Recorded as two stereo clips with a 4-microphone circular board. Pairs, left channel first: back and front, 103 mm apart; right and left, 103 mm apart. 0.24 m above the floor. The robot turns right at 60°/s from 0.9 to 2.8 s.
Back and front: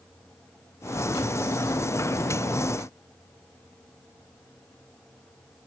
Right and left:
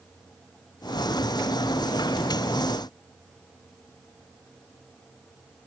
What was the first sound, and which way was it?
Only background noise.